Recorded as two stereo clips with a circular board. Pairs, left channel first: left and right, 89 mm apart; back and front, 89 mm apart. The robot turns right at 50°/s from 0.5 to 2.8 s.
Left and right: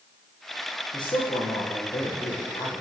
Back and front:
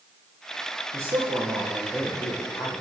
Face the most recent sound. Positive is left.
turn(degrees=145)